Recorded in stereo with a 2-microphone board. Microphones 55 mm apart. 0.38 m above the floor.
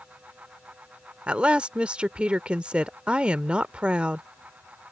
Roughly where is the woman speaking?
Right.